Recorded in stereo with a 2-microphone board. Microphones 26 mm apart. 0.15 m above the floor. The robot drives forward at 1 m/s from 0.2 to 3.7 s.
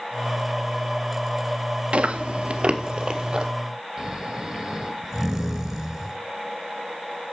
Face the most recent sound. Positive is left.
turn(degrees=-10)  # may be behind; listen again after turning